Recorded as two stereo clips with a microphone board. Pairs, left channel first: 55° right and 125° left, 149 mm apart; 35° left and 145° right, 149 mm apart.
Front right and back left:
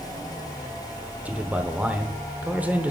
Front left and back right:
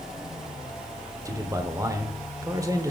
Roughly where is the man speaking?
Behind.